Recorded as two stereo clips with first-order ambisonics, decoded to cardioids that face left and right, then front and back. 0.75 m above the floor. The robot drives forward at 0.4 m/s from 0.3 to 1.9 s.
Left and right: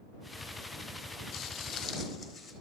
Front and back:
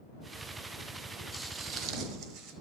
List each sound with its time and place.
1.3 s footsteps: 95° left, 0.9 m; by 2.5 s 170° left, 1.9 m